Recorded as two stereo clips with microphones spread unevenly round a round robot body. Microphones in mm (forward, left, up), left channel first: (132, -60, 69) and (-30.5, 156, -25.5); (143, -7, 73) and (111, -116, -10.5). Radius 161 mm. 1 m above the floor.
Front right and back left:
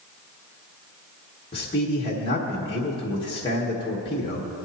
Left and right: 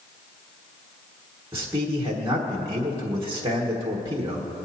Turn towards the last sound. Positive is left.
turn(degrees=-135)